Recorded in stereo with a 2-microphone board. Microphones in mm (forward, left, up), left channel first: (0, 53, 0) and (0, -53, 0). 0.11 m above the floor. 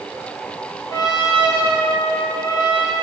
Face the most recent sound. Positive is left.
turn(degrees=35)  # may be behind; listen again after turning